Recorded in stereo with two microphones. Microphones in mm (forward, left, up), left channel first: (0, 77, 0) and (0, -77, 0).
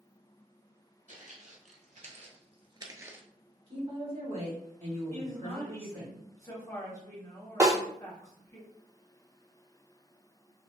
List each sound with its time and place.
1.1 s footsteps: 55° right (ahead or behind), 1.2 m; by 3.2 s 10° right (ahead or behind), 0.6 m
3.7 s a woman speaking: 45° right (ahead or behind), 1.9 m
5.1 s a woman speaking: 20° left (ahead or behind), 1.1 m
7.6 s a snare drum: 20° right (ahead or behind), 0.7 m